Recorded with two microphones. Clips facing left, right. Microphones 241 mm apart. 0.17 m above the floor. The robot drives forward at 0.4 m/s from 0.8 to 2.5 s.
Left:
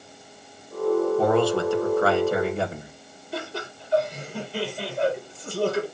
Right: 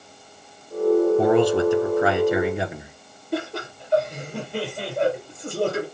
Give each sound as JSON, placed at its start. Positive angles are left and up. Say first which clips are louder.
{"t": 1.2, "sound": "a man speaking", "louder": "right 3 dB", "side_deg": -20, "distance_m": 1.6}
{"t": 3.3, "sound": "laughter", "louder": "right 6 dB", "side_deg": -65, "distance_m": 4.5}